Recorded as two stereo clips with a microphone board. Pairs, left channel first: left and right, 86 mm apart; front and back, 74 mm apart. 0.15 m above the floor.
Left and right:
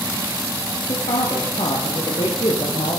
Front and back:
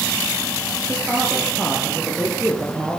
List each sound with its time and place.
0.9 s a woman speaking: 105° left, 8.5 m; by 3.0 s 100° left, 7.5 m